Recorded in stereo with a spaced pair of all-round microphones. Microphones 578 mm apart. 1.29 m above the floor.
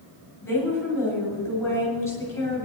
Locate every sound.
0.4 s a woman speaking: 20° left (ahead or behind), 7.5 m